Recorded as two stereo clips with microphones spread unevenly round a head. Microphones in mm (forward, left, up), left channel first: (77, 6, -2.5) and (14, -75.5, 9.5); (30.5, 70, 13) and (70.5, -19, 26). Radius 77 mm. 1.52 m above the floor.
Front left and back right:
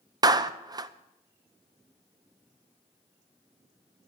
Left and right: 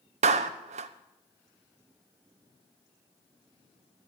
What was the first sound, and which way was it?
A clap, 75° right.